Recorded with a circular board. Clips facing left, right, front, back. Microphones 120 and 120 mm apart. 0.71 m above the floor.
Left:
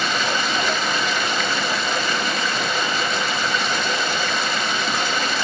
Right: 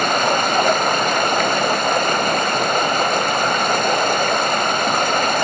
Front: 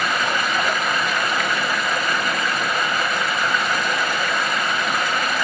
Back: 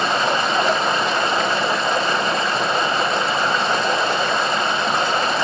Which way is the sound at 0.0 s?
120° right.